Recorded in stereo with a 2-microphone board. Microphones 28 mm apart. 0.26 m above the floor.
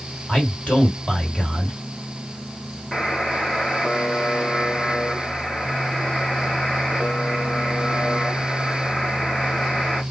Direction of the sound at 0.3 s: 40° left (ahead or behind).